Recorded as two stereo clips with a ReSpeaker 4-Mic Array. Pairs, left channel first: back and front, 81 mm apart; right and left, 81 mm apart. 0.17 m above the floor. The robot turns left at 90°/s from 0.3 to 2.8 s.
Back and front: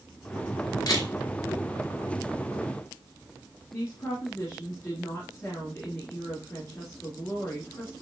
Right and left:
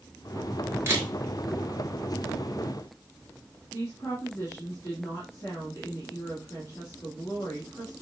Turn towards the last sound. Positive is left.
turn(degrees=-125)